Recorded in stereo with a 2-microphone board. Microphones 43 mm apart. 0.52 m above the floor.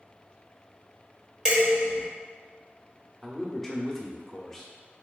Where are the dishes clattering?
15° right (ahead or behind), 1.2 m.